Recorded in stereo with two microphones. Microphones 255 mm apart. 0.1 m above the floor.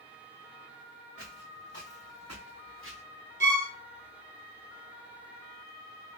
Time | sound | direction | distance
1.2 | footsteps | 65° right (ahead or behind) | 1.2 m
3.4 | a violin | 45° right (ahead or behind) | 0.6 m